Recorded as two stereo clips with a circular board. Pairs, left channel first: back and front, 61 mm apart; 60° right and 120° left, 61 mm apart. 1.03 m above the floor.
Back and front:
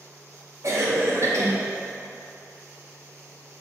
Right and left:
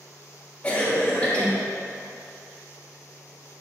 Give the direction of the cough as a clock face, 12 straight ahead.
12 o'clock.